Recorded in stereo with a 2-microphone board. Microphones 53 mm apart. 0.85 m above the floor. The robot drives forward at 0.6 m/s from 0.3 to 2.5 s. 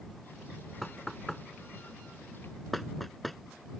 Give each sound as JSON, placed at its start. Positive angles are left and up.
{"t": 0.8, "sound": "knocking", "side_deg": 0}